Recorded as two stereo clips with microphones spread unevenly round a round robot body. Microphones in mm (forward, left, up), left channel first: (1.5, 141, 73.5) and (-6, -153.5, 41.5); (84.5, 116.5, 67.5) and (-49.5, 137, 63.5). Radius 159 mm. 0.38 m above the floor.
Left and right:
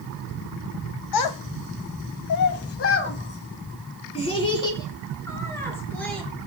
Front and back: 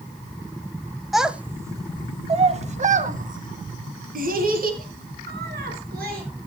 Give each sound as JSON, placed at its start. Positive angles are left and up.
{"t": 1.1, "sound": "a child speaking", "azimuth_deg": 85, "distance_m": 1.5}